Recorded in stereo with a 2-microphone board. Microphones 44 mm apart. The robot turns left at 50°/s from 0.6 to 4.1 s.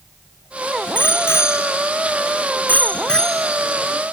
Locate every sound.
0.9 s a bicycle bell: 50° left (ahead or behind); by 4.0 s 25° right (ahead or behind)